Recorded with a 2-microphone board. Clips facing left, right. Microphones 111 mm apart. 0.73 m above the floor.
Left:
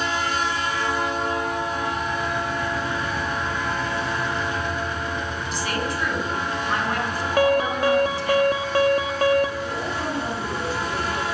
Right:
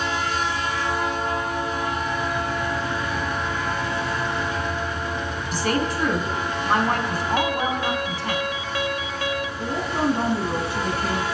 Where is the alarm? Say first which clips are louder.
Left 8 dB; 50° left (ahead or behind), 2.5 m.